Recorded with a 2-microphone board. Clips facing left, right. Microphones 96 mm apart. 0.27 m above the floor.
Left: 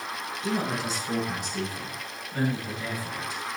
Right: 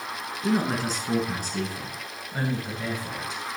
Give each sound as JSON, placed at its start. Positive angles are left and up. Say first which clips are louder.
{"t": 0.4, "sound": "a man speaking", "louder": "right 4 dB", "side_deg": -45, "distance_m": 2.5}